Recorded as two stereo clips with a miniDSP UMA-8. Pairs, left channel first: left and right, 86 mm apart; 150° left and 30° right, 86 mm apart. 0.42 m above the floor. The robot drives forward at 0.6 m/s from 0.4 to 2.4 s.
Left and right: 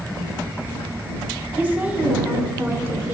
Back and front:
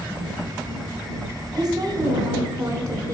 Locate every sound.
1.5 s a woman speaking: 25° right, 1.6 m; by 3.1 s 45° right, 1.3 m